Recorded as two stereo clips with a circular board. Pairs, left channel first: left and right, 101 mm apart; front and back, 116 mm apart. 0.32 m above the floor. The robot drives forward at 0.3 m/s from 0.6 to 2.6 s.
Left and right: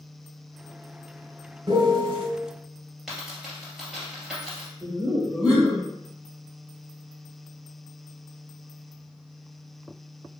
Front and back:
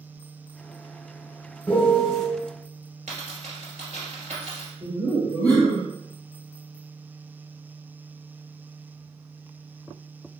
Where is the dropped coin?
175° right, 2.0 m.